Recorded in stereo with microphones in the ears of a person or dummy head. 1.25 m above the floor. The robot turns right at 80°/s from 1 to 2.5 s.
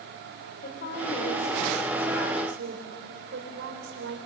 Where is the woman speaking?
125° left, 3.5 m; by 4.2 s 115° right, 3.5 m.